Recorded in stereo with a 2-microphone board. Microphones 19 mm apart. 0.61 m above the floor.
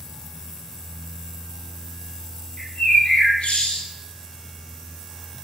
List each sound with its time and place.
2.6 s a bird: 55° left (ahead or behind), 3 m